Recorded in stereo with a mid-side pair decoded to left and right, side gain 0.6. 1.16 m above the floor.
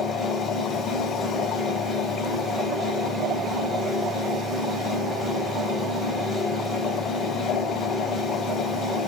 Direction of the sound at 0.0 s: 25° left.